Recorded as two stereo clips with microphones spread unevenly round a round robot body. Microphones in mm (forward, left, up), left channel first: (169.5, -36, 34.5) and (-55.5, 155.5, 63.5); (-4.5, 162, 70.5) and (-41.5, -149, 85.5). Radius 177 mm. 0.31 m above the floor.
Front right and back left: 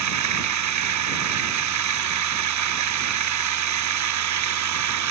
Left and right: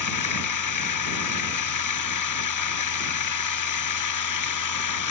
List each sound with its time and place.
0.0 s running water: 110° left